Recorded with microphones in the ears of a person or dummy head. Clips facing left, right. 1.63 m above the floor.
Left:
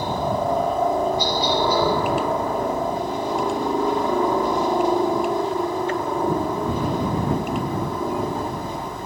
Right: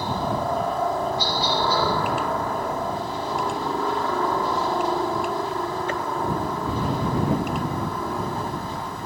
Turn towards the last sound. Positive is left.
turn(degrees=15)  # may be behind; listen again after turning